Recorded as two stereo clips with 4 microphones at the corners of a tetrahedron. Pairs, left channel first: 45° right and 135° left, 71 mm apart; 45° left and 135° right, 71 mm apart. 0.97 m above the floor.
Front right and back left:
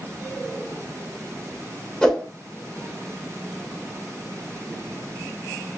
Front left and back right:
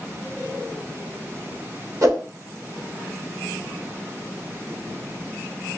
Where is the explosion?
I don't hear an explosion.